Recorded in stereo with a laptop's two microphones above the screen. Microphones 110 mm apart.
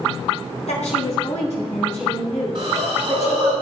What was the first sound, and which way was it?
A woman speaking, 80° left.